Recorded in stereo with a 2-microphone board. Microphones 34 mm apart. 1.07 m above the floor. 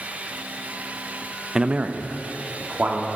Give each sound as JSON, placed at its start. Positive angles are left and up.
{"t": 1.6, "sound": "a man speaking", "side_deg": -10, "distance_m": 0.5}